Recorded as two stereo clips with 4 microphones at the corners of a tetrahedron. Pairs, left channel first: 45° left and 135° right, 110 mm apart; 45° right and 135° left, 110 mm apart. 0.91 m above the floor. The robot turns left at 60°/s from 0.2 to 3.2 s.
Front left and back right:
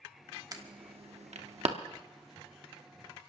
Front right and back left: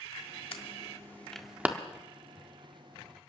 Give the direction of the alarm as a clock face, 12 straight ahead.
3 o'clock.